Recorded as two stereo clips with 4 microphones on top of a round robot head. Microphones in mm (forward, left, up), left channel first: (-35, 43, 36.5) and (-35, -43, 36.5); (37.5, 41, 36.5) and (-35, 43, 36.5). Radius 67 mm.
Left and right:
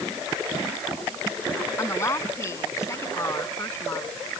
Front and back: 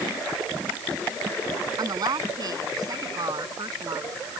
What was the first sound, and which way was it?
A woman speaking, 145° left.